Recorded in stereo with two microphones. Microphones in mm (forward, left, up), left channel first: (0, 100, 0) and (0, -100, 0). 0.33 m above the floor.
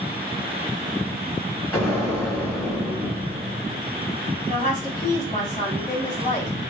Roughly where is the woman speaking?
Left.